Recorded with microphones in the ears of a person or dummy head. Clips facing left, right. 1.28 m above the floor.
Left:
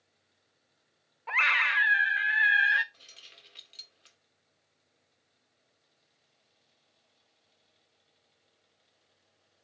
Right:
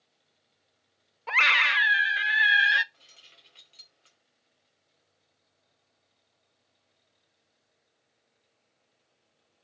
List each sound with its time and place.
1.3 s a scream: 45° right (ahead or behind), 0.5 m
2.9 s keys jangling: 20° left (ahead or behind), 2 m